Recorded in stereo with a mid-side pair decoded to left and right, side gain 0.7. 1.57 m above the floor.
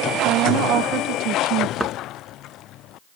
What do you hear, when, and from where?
0.2 s a woman speaking: 60° right
1.8 s a thud: 5° right